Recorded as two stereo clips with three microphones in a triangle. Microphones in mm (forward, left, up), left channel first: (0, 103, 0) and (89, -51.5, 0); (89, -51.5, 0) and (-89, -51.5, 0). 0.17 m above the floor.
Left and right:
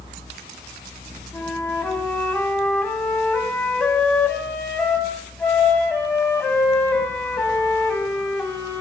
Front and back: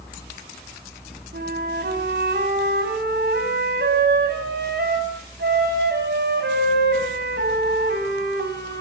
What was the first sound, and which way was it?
A flute, 160° right.